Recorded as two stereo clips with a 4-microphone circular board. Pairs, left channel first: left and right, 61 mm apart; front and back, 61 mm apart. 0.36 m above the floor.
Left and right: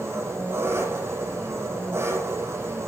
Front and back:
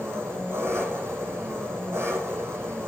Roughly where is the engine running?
Behind right.